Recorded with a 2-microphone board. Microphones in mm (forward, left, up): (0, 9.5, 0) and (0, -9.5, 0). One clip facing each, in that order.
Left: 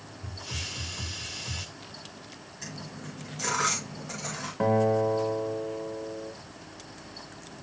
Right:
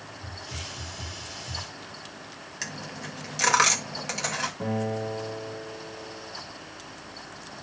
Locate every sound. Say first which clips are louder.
0.2 s a hiss: left 3 dB; 55° left (ahead or behind), 1.7 m
2.6 s a dropped coin: right 5 dB; 60° right (ahead or behind), 1.6 m
4.6 s a guitar: left 6 dB; 55° left (ahead or behind), 1.7 m